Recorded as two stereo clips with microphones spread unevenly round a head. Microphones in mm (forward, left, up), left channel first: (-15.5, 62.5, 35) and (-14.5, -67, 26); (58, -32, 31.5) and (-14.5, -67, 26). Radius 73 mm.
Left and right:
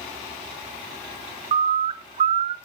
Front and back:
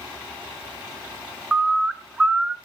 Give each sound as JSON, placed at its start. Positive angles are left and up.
{"t": 1.5, "sound": "a bird", "azimuth_deg": -75, "distance_m": 0.7}